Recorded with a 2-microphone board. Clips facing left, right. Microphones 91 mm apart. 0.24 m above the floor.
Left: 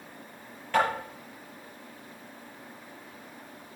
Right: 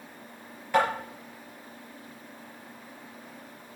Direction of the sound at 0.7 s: 10° right (ahead or behind).